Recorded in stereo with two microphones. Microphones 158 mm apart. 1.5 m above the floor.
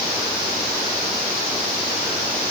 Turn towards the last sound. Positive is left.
No sound to turn to.